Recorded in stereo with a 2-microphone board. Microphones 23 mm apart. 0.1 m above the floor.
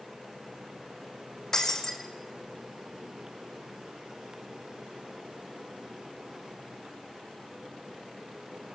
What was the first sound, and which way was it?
Breaking glass, 25° left (ahead or behind).